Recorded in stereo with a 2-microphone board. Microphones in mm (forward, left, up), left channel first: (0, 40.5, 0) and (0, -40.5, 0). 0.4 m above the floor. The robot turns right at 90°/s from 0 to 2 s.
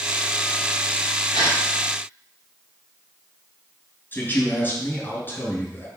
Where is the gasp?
70° left (ahead or behind), 5 m; by 1.6 s 45° left (ahead or behind), 5 m.